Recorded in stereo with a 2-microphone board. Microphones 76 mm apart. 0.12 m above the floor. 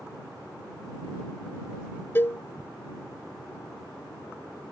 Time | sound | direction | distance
2.1 | a cowbell | 30° left (ahead or behind) | ?